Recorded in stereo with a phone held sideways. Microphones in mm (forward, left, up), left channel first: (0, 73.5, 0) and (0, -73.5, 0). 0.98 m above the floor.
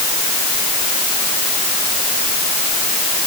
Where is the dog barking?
I don't hear a dog barking.